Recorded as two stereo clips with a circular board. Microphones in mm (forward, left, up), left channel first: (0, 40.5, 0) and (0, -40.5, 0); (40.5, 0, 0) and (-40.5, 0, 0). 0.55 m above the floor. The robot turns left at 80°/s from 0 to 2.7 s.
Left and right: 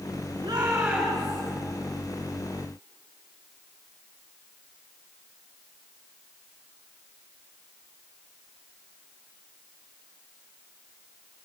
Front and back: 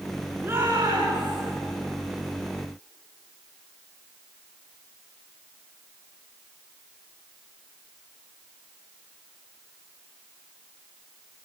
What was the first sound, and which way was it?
A shout, 125° right.